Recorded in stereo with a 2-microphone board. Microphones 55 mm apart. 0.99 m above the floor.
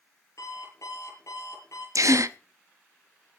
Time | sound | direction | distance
0.4 | an alarm clock | 80° left | 8 m
1.9 | a gasp | 80° right | 0.7 m